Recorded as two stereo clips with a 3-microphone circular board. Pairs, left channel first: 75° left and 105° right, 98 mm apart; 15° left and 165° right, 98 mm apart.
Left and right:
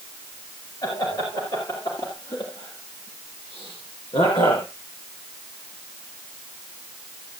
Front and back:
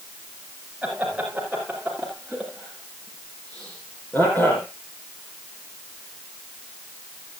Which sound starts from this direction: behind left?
Laughter, at 0.8 s.